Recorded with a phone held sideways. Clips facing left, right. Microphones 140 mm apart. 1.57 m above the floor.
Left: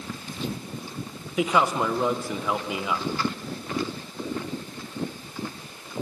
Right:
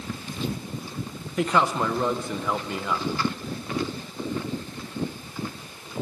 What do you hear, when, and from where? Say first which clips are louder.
1.4 s a man speaking: even; 5° left (ahead or behind), 1.4 m